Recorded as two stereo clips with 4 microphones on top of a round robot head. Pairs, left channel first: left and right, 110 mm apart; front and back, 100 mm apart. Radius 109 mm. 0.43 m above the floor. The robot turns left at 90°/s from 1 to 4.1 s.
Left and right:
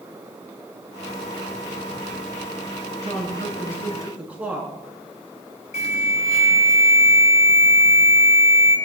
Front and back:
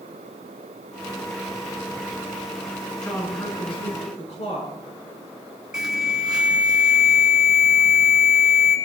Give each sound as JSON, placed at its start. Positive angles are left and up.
{"t": 3.0, "sound": "a woman speaking", "azimuth_deg": 85, "distance_m": 7.5}
{"t": 5.7, "sound": "an alarm", "azimuth_deg": 100, "distance_m": 4.5}